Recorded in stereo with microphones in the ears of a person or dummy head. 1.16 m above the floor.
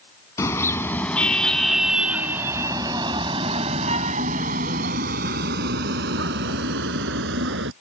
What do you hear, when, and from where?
0.4 s a car horn: 20° left (ahead or behind); by 7.7 s 75° right (ahead or behind)